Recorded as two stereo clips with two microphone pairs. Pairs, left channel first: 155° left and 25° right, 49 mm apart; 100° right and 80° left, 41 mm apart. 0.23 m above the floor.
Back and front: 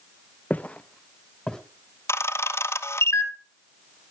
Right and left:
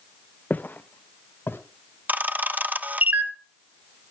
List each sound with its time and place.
0.5 s footsteps: 150° right, 1.1 m; by 1.6 s 125° right, 2 m
2.1 s a camera shutter: 130° left, 0.9 m